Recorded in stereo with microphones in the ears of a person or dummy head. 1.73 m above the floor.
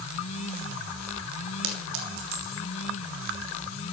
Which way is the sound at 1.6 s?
70° right (ahead or behind).